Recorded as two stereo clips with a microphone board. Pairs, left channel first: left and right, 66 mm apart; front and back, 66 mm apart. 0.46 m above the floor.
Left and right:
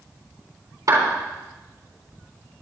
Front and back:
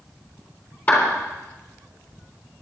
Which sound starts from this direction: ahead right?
A clap, at 0.9 s.